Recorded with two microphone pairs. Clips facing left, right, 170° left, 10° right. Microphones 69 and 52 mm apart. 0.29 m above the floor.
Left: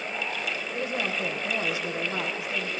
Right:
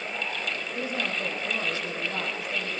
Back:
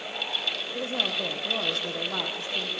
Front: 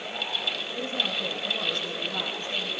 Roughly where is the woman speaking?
Behind.